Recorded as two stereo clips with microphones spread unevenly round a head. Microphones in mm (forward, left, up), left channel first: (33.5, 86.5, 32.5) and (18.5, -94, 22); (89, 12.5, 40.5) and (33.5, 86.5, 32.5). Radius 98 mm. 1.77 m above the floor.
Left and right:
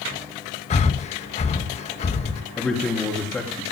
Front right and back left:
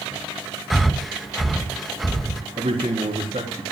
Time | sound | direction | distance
0.7 | breathing | 35° left | 1.8 m
2.6 | a man speaking | 170° left | 3.5 m